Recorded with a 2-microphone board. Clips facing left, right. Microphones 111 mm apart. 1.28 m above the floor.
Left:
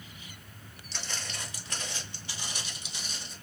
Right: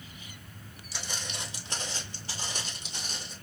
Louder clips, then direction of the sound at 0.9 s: Right 1 dB; 10° right (ahead or behind).